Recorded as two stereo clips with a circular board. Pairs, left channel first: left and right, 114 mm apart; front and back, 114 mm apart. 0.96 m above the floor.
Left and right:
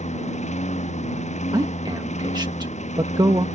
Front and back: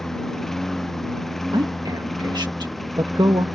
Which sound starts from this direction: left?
A lawn mower, at 0.0 s.